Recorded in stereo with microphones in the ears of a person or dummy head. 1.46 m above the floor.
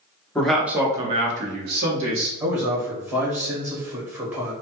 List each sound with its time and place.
0.3 s a man speaking: 5° left (ahead or behind), 0.8 m; by 2.3 s 75° right (ahead or behind), 1.0 m
2.4 s a man speaking: 10° right (ahead or behind), 0.6 m